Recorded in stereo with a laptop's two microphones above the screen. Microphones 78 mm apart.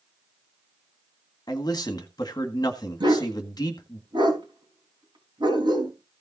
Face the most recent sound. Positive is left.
turn(degrees=-75)  # may be behind; listen again after turning